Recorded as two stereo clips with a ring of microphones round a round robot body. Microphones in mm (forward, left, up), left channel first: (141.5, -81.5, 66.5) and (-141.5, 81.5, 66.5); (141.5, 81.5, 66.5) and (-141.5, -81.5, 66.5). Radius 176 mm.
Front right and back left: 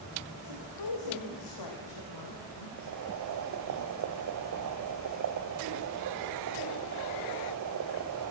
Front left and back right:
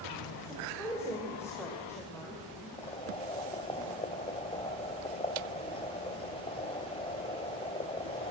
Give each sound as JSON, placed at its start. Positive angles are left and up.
{"t": 0.4, "sound": "a woman speaking", "azimuth_deg": -50, "distance_m": 2.5}
{"t": 2.8, "sound": "boiling", "azimuth_deg": 105, "distance_m": 1.1}